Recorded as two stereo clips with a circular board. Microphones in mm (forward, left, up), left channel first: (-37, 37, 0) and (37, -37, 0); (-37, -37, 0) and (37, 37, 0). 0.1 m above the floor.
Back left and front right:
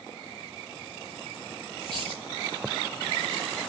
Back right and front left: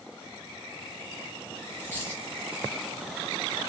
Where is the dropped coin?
155° left, 5 m.